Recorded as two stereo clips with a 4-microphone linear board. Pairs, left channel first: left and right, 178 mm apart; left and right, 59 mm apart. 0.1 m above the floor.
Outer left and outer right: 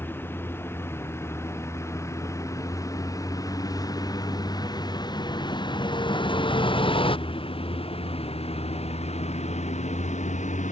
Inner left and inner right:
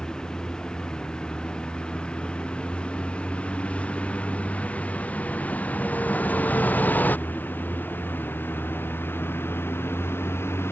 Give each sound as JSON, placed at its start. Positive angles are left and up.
{"t": 0.0, "sound": "a vehicle", "side_deg": 15}